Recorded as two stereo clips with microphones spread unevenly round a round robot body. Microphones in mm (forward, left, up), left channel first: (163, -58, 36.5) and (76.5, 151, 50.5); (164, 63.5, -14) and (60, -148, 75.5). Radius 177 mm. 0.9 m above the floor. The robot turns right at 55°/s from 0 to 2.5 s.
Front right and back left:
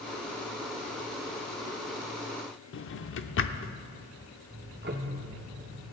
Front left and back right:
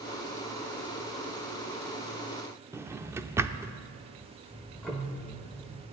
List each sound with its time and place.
2.7 s a drawer: 60° right, 0.6 m
4.5 s ticking: 170° left, 0.8 m